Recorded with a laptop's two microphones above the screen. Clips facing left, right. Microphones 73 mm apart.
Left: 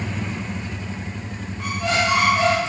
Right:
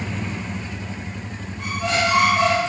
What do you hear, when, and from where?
1.6 s a squeak: 5° right (ahead or behind), 1.8 m